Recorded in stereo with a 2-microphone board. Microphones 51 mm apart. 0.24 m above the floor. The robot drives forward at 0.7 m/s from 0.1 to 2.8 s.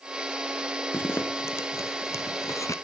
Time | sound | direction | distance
0.9 | a zipper | 40° left (ahead or behind) | 1.5 m